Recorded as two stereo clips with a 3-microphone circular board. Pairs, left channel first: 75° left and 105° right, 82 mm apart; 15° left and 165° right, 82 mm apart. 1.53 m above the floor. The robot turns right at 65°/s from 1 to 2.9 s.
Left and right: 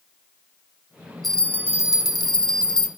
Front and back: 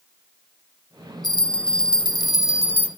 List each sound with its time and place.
1.2 s a bell: 15° right, 0.9 m; by 2.9 s 90° left, 0.9 m